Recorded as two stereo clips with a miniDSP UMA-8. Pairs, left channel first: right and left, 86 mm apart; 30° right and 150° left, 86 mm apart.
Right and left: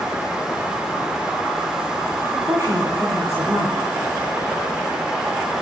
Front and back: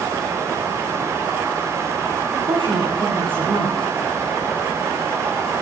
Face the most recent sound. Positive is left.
turn(degrees=140)